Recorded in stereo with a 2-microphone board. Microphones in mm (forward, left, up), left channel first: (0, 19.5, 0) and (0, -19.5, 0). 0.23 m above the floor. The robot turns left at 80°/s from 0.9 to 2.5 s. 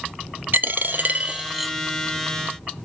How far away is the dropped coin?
About 0.5 m.